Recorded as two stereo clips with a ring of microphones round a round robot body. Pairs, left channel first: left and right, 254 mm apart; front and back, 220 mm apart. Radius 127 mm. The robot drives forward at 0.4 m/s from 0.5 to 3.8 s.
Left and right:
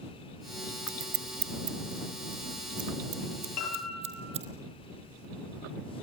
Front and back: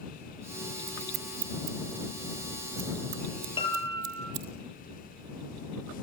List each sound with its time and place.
0.9 s scissors: 120° right, 0.9 m; by 4.5 s 155° right, 1.8 m
3.6 s a piano: 65° left, 7 m